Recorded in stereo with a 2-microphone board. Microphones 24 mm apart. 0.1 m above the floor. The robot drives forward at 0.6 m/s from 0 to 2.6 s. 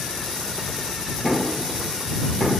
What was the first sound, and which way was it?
Knocking, 25° left (ahead or behind).